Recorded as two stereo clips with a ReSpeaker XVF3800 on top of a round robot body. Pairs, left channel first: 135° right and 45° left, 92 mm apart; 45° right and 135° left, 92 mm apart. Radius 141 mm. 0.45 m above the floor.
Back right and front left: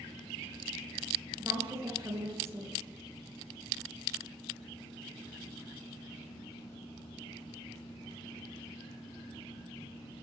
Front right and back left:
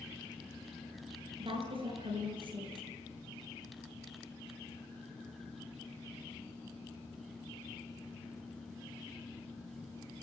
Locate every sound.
1.4 s a woman speaking: 110° left, 9.5 m